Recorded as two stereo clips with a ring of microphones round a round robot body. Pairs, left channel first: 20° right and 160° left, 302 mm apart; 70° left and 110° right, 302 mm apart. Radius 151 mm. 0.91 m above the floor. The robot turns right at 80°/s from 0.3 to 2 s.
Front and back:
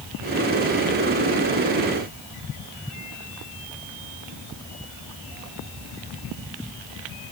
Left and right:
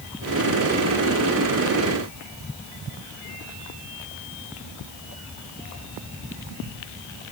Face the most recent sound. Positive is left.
No sound to turn to.